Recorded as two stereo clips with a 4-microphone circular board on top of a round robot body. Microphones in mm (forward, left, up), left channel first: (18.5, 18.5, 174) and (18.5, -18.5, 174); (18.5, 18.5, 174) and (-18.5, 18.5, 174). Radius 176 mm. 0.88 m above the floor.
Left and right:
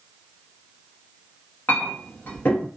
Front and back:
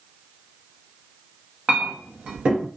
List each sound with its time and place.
1.7 s a clink: 120° left, 0.8 m